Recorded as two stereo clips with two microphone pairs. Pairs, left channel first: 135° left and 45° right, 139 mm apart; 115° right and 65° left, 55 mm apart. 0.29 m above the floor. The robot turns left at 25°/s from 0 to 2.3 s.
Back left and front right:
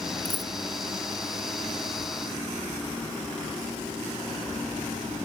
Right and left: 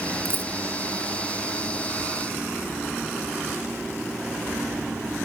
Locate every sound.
0.2 s a dropped coin: 80° left, 0.8 m; by 0.5 s 75° left, 0.8 m